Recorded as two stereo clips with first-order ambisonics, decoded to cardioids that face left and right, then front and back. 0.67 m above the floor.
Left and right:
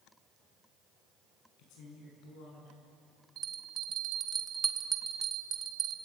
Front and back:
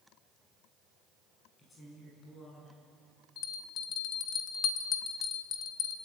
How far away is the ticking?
No ticking in this recording.